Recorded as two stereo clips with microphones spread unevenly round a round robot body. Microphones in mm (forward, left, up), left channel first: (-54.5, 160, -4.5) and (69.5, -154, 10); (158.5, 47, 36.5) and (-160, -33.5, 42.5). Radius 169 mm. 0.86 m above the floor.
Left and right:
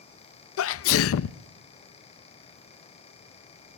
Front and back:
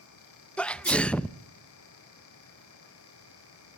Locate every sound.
0.6 s a sneeze: 100° left, 0.6 m